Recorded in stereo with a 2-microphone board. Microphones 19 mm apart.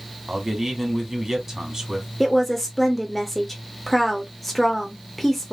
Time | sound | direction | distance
0.3 | a man speaking | 20° right (ahead or behind) | 1.6 m
2.2 | a woman speaking | 5° left (ahead or behind) | 0.9 m